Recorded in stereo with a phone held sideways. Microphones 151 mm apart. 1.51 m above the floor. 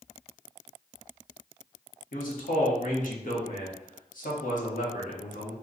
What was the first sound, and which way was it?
A man speaking, 60° left (ahead or behind).